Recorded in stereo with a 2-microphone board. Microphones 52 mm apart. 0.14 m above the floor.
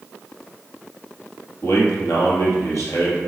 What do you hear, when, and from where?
1.6 s a man speaking: 65° left (ahead or behind), 2.5 m